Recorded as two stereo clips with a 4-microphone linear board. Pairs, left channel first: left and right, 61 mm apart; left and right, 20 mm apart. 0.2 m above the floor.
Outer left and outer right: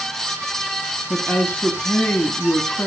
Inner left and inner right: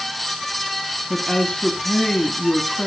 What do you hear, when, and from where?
1.1 s a woman speaking: 40° left (ahead or behind), 1.4 m